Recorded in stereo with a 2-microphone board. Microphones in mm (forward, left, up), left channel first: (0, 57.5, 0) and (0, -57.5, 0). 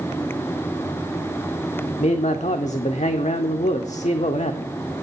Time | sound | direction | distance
2.0 | a man speaking | 85° left | 0.5 m